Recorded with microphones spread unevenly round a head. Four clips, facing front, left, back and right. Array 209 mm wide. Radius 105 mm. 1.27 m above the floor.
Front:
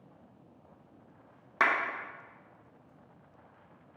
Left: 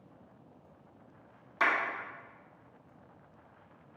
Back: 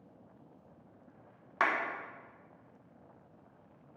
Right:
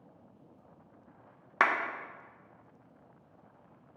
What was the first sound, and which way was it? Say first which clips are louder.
A clap: right 2 dB, front 3 dB; 65° right.